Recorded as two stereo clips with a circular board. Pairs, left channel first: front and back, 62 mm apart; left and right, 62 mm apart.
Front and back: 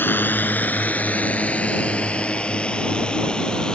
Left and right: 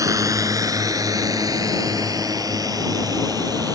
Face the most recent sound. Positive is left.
turn(degrees=-75)